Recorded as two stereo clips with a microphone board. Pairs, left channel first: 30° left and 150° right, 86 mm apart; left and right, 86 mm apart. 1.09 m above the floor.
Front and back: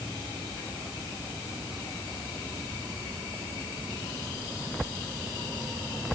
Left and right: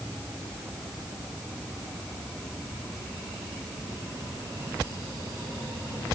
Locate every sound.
Only background noise.